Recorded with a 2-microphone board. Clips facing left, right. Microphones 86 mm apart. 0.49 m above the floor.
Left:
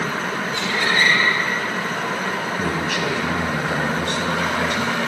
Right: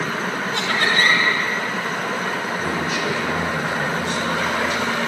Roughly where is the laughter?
Right.